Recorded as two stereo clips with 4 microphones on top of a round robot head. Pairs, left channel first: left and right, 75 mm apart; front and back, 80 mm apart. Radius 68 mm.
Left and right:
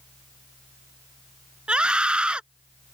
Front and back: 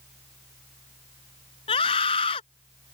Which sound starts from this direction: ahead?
A scream, at 1.7 s.